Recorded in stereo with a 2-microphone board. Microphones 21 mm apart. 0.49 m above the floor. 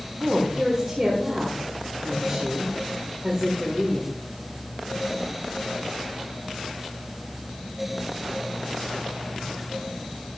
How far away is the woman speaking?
About 1.8 m.